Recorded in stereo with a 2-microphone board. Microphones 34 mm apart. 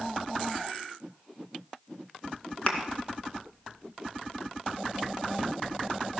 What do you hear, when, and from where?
2.7 s a thud: 30° left (ahead or behind), 1.9 m